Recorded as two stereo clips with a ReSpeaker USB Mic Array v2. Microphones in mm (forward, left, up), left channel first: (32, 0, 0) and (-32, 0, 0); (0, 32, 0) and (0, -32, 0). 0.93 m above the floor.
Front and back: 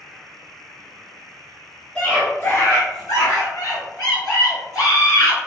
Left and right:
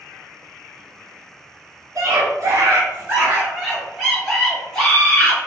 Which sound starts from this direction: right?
A scream, at 1.9 s.